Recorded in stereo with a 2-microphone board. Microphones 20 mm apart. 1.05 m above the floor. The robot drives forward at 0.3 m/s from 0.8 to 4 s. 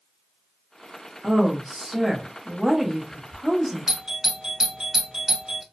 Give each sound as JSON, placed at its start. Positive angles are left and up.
{"t": 1.2, "sound": "a woman speaking", "side_deg": -5, "distance_m": 0.9}
{"t": 3.9, "sound": "a doorbell", "side_deg": -30, "distance_m": 0.6}